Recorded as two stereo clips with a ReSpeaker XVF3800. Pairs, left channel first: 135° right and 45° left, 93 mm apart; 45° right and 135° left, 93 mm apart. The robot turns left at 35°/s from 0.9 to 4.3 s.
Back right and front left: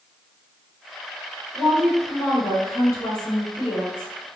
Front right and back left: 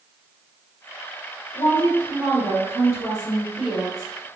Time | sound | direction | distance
1.5 | a woman speaking | 50° right | 1.9 m